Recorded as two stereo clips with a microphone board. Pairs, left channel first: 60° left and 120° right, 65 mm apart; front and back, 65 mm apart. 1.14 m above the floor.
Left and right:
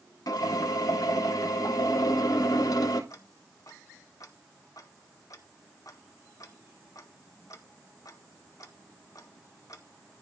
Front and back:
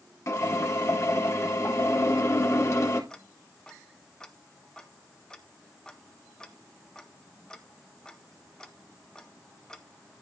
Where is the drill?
45° left, 3.5 m.